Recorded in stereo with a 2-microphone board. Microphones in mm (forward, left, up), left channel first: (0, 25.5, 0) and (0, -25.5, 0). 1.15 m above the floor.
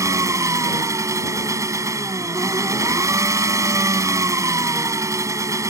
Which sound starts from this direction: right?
An engine running, at 0.0 s.